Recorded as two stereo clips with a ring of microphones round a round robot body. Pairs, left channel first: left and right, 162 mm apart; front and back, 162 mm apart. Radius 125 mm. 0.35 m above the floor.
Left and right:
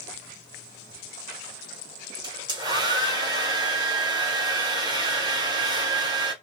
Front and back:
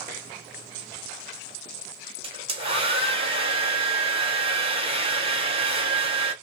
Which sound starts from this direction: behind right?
A hair dryer, at 2.2 s.